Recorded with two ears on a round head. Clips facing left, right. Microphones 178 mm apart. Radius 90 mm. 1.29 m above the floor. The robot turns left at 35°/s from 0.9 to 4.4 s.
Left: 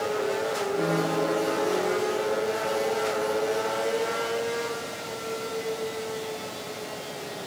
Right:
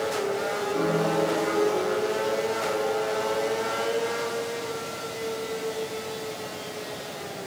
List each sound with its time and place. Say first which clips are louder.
0.7 s a piano: right 2 dB; 105° right, 4.5 m; by 2.1 s 145° right, 4.5 m